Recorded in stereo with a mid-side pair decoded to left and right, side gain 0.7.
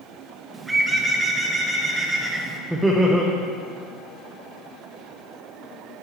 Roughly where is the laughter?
Ahead.